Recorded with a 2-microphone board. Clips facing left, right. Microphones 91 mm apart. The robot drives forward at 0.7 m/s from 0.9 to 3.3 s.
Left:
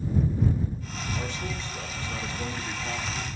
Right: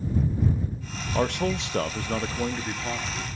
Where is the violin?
No violin in this recording.